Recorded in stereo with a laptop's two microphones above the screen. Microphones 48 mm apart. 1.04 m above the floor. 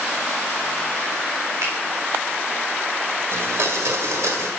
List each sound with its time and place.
1.6 s a finger snap: 70° right (ahead or behind), 3.5 m
3.3 s a blender: 75° right (ahead or behind), 1.9 m